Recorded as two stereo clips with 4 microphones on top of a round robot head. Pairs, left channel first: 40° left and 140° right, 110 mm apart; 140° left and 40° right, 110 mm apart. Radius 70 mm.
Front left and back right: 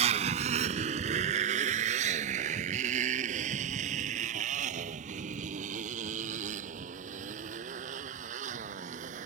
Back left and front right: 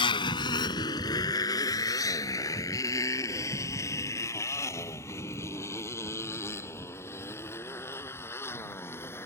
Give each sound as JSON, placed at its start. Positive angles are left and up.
{"t": 0.0, "sound": "a motorcycle", "azimuth_deg": -175}